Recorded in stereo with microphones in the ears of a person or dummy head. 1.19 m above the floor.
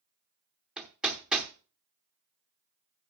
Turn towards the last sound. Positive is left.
turn(degrees=-5)  # may be behind; listen again after turning